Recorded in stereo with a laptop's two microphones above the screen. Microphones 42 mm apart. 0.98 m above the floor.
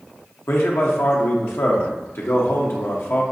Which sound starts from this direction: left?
A man speaking, at 0.5 s.